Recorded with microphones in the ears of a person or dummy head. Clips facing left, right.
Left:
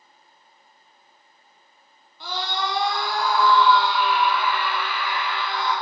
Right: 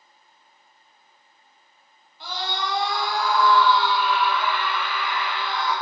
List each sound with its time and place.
2.2 s a scream: 85° left, 1.3 m; by 5.7 s 5° left (ahead or behind), 3.5 m